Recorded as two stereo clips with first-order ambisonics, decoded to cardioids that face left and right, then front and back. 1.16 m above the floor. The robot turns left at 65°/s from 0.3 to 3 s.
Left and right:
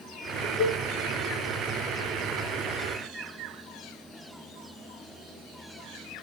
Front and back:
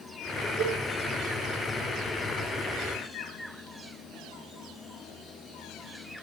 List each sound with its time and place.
0.6 s a cowbell: 150° left, 6 m; by 0.8 s 135° left, 6 m